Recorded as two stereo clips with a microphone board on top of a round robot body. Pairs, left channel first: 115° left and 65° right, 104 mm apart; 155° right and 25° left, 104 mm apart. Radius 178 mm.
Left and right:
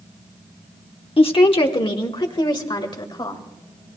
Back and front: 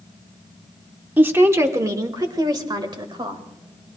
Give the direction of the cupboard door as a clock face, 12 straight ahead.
I don't hear a cupboard door.